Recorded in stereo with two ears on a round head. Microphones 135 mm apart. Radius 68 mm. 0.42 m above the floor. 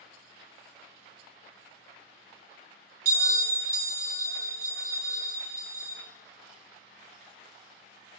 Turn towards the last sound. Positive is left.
turn(degrees=-65)  # may be behind; listen again after turning